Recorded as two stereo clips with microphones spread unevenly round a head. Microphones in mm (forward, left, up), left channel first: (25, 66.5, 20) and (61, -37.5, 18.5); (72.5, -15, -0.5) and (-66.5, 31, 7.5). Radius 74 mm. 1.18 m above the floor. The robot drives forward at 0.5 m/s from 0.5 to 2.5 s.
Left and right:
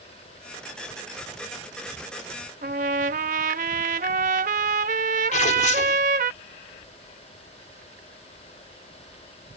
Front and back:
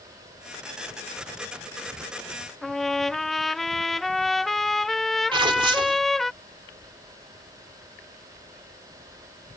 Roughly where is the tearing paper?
Left.